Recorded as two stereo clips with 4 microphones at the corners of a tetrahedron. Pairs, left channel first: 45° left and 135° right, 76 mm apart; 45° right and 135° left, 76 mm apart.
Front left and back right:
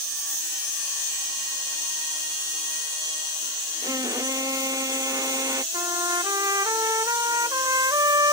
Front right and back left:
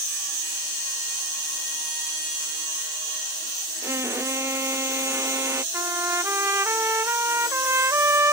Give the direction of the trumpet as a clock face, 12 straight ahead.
6 o'clock.